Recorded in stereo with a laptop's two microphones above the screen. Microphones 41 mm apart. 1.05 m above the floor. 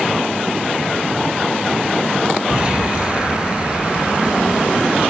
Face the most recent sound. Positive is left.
turn(degrees=-25)  # may be behind; listen again after turning